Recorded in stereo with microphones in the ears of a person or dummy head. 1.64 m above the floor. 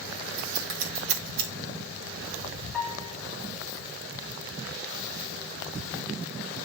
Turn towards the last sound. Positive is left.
turn(degrees=0)  # may be behind; listen again after turning